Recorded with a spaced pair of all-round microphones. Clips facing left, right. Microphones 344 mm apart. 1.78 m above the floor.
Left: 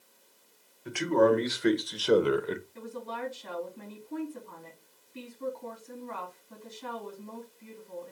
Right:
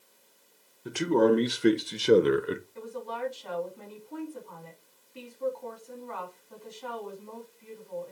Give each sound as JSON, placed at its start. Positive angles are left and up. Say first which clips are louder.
{"t": 0.8, "sound": "a man speaking", "louder": "right 1 dB", "side_deg": -50, "distance_m": 1.4}
{"t": 2.8, "sound": "a woman speaking", "louder": "right 2 dB", "side_deg": 25, "distance_m": 3.5}